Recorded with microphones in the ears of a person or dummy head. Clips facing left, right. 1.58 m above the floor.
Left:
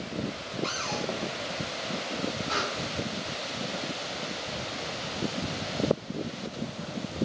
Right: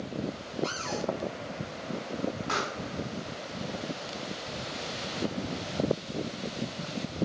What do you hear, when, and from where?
0.6 s a cupboard door: 15° right (ahead or behind), 0.9 m
2.5 s a pop: 70° right (ahead or behind), 3 m